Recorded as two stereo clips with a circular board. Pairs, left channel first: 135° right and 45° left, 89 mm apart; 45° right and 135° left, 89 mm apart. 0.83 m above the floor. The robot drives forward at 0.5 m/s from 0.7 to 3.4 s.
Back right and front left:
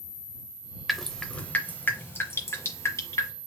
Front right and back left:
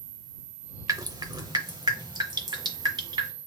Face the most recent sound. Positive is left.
turn(degrees=170)